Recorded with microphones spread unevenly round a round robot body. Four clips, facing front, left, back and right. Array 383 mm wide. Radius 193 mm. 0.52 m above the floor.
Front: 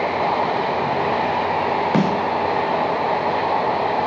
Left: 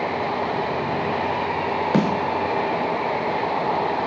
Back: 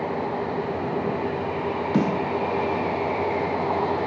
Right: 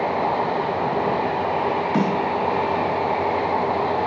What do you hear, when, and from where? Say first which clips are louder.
1.9 s a snare drum: left 3 dB, front 2 dB; 45° left, 2.5 m